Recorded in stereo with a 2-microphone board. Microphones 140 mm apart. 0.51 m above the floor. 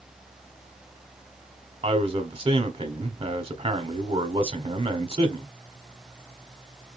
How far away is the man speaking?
About 1.3 m.